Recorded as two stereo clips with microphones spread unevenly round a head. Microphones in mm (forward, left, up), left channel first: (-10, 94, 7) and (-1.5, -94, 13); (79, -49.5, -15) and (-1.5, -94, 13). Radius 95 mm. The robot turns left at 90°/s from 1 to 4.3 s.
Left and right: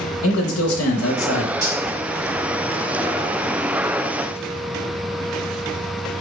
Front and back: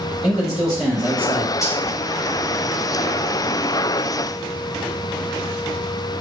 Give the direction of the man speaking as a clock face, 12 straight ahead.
9 o'clock.